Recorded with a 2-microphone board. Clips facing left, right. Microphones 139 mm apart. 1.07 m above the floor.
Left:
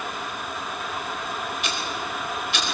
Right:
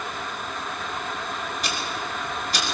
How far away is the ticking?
About 4.5 m.